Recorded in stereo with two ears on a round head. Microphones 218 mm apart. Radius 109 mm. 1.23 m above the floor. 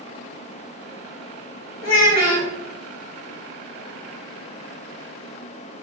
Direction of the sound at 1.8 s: 70° left (ahead or behind).